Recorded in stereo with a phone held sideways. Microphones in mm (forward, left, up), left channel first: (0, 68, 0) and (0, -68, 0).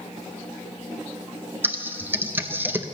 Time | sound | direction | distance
1.6 | typing on a keyboard | 15° right (ahead or behind) | 0.6 m